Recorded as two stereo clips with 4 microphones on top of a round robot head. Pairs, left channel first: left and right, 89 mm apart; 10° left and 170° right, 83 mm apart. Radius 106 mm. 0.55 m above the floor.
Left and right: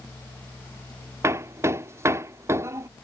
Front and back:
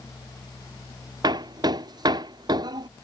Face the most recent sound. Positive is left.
turn(degrees=-145)